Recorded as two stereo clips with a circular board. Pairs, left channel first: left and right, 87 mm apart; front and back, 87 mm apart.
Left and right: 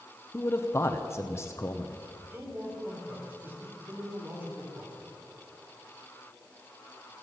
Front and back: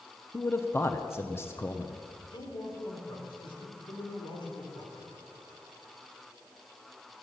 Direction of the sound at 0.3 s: 45° left.